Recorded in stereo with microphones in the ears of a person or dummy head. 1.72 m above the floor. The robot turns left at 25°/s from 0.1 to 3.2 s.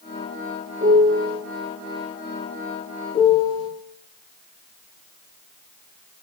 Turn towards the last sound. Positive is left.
turn(degrees=75)  # may be behind; listen again after turning